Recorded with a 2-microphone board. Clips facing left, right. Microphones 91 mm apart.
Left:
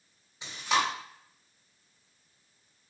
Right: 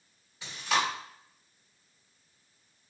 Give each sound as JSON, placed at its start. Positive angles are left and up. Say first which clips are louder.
{"t": 0.4, "sound": "chewing", "louder": "left 1 dB", "side_deg": 20, "distance_m": 1.6}